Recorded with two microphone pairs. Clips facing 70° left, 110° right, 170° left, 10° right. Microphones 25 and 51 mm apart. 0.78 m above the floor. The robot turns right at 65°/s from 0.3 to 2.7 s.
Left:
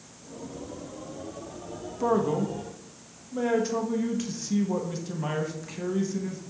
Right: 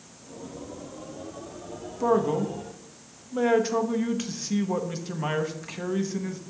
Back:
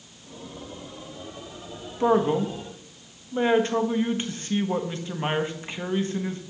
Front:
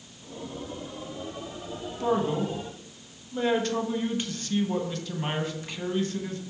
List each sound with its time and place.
2.0 s a man speaking: 155° left, 0.8 m; by 6.4 s 155° right, 0.8 m